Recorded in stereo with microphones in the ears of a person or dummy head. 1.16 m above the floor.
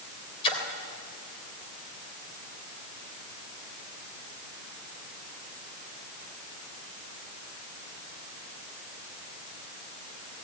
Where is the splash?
30° left (ahead or behind), 3 m.